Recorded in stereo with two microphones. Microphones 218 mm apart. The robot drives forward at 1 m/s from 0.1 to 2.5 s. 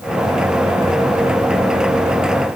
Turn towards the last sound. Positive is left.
No sound to turn to.